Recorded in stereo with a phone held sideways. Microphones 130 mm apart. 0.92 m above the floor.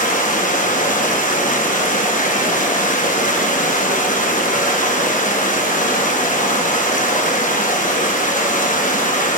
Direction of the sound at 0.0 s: 75° left (ahead or behind).